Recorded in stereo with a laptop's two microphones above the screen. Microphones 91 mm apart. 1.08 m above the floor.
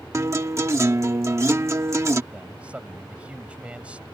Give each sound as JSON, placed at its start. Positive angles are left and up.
{"t": 0.1, "sound": "a guitar", "side_deg": -35}
{"t": 2.3, "sound": "a man speaking", "side_deg": -15}